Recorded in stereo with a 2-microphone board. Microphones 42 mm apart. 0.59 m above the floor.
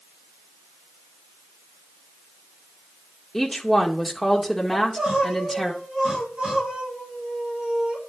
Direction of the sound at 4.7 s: 25° right (ahead or behind).